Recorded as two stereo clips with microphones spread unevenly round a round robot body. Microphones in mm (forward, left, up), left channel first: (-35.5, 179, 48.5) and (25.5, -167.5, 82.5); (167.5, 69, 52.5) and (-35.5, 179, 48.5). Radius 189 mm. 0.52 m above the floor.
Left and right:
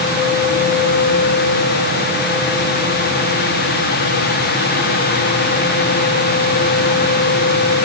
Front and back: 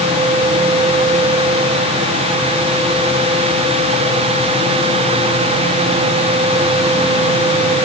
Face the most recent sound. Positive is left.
No sound to turn to.